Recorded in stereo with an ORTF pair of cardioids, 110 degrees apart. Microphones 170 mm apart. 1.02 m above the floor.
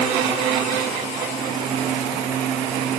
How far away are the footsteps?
No footsteps in this recording.